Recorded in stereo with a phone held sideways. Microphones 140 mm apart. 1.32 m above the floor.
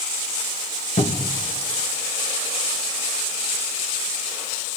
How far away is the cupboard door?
About 2 m.